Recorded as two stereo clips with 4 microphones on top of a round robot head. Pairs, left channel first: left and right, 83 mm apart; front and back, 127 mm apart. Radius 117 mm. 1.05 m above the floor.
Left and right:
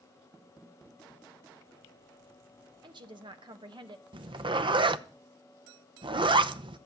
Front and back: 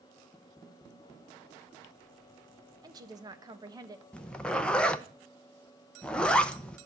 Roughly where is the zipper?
Right.